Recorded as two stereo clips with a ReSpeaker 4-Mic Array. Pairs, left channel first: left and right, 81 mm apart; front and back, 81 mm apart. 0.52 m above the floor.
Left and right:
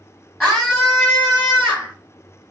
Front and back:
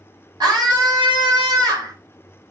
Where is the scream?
175° left, 2.5 m; by 1.9 s 170° right, 1.7 m.